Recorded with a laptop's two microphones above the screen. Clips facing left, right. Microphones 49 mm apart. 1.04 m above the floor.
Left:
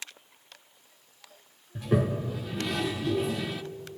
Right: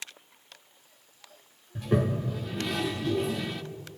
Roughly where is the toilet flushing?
Centre.